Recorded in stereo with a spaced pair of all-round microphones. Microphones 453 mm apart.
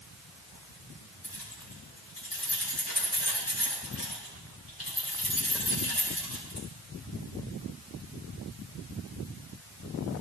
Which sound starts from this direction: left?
Keys jangling, at 1.2 s.